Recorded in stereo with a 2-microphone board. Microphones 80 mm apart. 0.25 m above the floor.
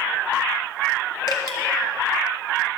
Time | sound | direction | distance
1.3 | dripping | 55° left (ahead or behind) | 1.6 m